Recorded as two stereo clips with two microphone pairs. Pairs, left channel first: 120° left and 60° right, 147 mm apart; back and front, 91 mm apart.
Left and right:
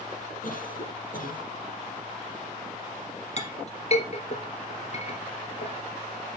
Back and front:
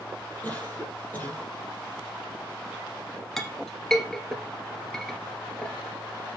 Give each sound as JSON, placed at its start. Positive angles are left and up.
{"t": 0.4, "sound": "a cough", "azimuth_deg": 115, "distance_m": 4.0}
{"t": 3.4, "sound": "a clink", "azimuth_deg": 100, "distance_m": 1.5}